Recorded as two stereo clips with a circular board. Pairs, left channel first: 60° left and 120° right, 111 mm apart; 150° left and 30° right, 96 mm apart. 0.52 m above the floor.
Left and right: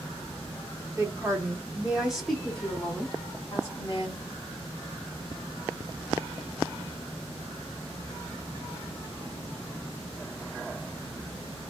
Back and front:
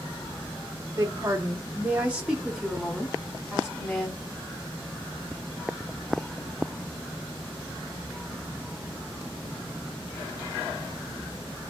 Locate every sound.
1.0 s a woman speaking: 75° right, 1.3 m; by 4.2 s 90° left, 1.4 m